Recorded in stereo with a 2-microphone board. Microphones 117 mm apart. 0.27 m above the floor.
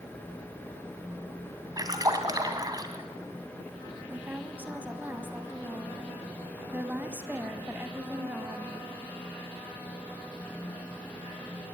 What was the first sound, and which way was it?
A splash, 35° right (ahead or behind).